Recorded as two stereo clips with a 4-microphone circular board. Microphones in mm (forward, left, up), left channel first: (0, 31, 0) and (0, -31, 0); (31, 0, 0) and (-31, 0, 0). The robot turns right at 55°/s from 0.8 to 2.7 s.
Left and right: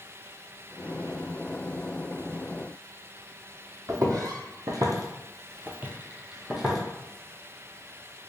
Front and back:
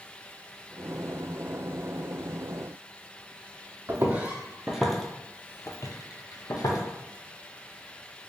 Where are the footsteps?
120° right, 0.9 m; by 6.8 s straight ahead, 0.9 m.